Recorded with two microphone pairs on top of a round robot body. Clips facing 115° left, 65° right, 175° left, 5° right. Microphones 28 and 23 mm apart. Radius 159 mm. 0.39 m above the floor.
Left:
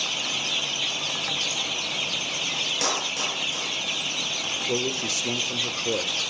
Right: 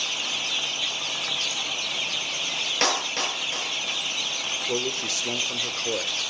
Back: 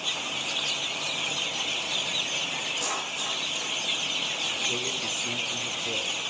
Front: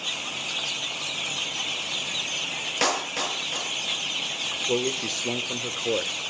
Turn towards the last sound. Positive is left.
turn(degrees=5)